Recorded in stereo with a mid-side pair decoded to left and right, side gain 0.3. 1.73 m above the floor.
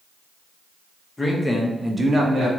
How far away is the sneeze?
I don't hear a sneeze.